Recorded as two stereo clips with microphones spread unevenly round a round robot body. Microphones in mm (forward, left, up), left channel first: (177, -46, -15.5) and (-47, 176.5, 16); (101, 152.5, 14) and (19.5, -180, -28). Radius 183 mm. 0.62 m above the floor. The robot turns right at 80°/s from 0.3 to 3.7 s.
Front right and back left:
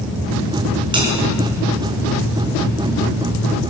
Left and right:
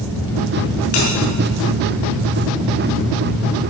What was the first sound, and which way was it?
A bell, 60° left.